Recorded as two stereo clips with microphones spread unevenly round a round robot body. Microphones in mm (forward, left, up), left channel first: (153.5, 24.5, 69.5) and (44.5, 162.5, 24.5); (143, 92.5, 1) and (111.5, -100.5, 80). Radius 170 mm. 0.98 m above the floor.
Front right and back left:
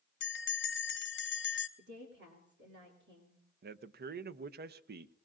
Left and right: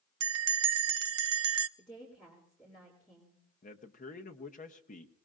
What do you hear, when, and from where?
0.2 s a bell: 90° right, 0.6 m
1.8 s a woman speaking: 155° left, 2.5 m
3.6 s a man speaking: 120° left, 0.7 m